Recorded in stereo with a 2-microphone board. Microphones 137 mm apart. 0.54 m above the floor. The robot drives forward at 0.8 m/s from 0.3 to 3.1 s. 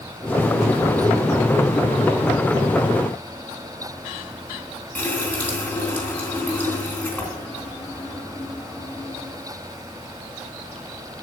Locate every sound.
5.0 s a running tap: 10° left (ahead or behind), 3.5 m